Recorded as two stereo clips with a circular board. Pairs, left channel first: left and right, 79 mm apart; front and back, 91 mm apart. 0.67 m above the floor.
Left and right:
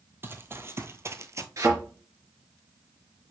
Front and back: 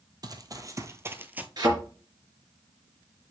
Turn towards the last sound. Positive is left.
turn(degrees=-135)